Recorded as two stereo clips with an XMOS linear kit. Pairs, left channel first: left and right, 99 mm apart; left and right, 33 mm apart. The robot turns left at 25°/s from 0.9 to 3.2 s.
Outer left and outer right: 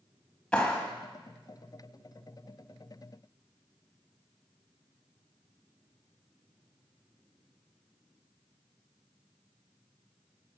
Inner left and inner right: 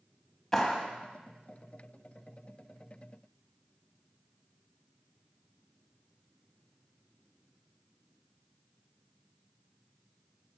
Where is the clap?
10° left (ahead or behind), 1.4 m.